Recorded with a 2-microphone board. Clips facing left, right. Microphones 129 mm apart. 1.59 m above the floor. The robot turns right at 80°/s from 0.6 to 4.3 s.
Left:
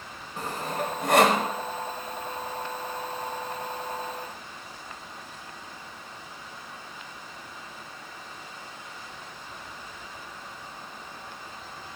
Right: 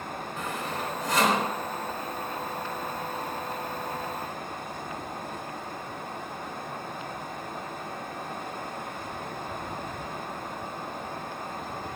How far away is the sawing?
About 4 m.